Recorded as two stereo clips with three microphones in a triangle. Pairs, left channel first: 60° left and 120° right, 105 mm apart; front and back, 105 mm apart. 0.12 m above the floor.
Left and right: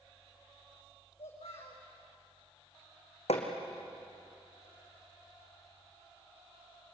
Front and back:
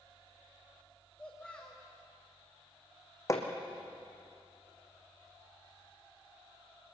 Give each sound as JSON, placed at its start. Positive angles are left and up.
{"t": 1.2, "sound": "a child speaking", "azimuth_deg": 80, "distance_m": 7.0}
{"t": 3.3, "sound": "hammering", "azimuth_deg": 60, "distance_m": 3.0}